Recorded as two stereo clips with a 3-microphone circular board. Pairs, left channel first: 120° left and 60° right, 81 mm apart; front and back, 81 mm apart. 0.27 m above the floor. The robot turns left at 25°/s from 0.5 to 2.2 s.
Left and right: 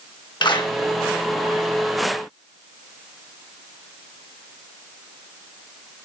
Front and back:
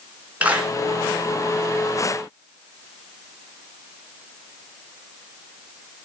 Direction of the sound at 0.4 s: 110° left.